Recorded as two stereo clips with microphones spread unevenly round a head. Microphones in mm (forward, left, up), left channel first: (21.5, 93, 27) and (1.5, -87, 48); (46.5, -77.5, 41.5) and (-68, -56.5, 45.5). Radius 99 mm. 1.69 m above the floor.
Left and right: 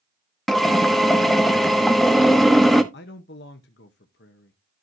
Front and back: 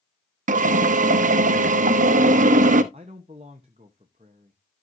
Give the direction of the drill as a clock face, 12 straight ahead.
6 o'clock.